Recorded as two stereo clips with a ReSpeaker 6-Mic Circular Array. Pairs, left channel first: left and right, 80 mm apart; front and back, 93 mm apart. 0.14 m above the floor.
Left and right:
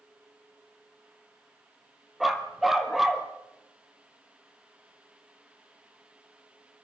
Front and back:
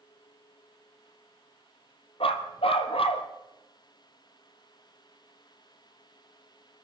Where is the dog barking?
5° right, 2 m.